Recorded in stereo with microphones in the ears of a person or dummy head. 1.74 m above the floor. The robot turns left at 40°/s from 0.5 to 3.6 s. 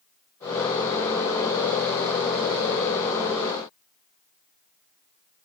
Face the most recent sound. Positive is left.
No sound to turn to.